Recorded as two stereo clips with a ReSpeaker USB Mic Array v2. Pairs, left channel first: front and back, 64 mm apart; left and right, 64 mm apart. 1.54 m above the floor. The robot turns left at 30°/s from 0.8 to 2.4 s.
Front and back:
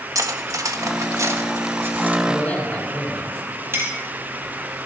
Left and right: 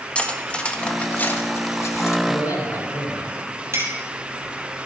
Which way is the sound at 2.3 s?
70° left.